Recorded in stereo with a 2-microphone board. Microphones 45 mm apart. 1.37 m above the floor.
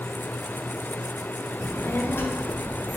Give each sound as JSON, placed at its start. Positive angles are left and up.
{"t": 1.6, "sound": "a child speaking", "side_deg": 55, "distance_m": 0.5}